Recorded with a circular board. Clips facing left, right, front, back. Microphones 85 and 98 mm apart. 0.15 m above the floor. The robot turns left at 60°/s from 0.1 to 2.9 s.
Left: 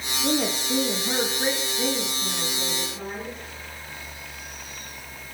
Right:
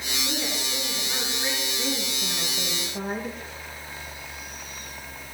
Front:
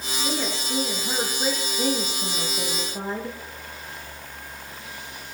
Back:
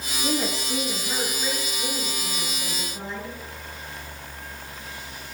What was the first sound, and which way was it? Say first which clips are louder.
A woman speaking: left 9 dB, back 3 dB; 115° left.